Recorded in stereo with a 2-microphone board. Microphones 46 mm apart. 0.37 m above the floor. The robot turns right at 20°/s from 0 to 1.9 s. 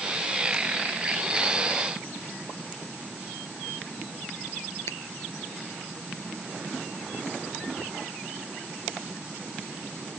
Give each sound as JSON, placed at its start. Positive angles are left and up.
{"t": 4.9, "sound": "a finger snap", "side_deg": 70}